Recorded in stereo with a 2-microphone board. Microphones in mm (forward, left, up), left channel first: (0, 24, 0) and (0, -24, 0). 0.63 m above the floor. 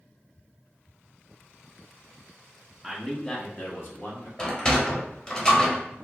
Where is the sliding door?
15° left (ahead or behind), 0.6 m.